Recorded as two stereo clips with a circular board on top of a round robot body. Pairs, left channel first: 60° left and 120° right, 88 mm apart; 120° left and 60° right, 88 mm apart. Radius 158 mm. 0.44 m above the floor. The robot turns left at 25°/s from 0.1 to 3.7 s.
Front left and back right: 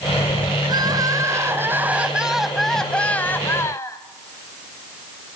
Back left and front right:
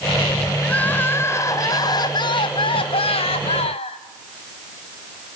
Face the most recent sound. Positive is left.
turn(degrees=120)